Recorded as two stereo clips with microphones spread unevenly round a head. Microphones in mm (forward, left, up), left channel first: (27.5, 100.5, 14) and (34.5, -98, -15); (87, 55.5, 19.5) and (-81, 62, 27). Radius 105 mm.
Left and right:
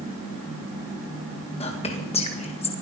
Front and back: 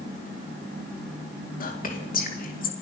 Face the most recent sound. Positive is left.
turn(degrees=35)